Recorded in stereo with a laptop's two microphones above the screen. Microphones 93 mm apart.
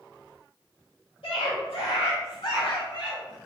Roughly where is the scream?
Left.